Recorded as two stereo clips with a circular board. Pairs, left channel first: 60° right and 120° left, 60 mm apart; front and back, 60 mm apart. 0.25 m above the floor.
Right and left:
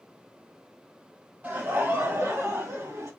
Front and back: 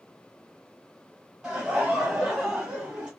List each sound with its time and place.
1.4 s laughter: 115° left, 1.1 m; by 3.1 s 105° left, 1.8 m